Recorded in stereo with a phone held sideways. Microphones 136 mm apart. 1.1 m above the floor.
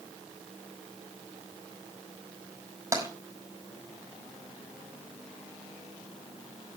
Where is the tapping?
20° right (ahead or behind), 5 m.